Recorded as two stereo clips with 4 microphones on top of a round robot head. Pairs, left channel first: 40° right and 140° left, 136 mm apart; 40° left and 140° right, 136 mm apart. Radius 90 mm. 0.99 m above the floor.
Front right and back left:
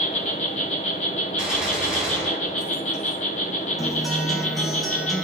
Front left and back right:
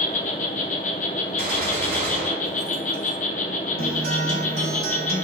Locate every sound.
0.0 s an insect: straight ahead, 1.1 m
1.4 s a gunshot: 135° right, 3.5 m
3.8 s a guitar: 130° right, 1.3 m